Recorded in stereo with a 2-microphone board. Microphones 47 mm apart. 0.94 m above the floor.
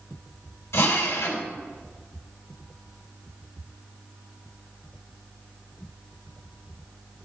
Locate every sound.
0.7 s a drill: 85° left, 3.5 m